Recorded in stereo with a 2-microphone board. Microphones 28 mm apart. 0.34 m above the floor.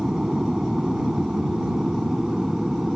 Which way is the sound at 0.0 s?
20° right (ahead or behind).